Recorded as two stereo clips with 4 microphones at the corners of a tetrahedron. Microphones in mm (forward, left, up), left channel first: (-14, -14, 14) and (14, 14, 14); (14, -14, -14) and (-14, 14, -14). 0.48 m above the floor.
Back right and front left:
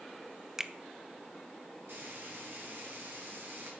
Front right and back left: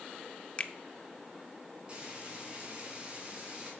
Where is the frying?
75° left, 4.5 m.